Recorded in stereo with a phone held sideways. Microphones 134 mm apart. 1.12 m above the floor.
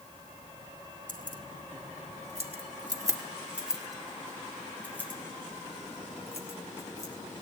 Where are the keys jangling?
80° right, 2 m; by 7.4 s 25° left (ahead or behind), 6 m.